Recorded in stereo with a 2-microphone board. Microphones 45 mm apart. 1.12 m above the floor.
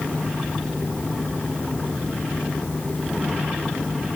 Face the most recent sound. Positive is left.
No sound to turn to.